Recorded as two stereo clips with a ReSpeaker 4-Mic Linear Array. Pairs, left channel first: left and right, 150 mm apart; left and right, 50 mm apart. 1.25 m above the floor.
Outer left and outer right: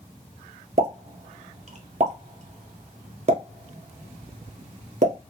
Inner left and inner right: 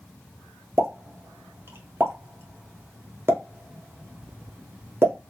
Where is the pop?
50° right (ahead or behind), 0.8 m.